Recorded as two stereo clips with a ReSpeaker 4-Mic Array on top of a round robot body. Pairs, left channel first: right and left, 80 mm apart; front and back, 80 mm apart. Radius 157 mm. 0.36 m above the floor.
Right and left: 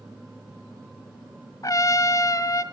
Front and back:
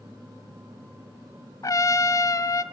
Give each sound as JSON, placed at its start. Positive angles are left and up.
{"t": 1.6, "sound": "a trumpet", "azimuth_deg": -45, "distance_m": 1.1}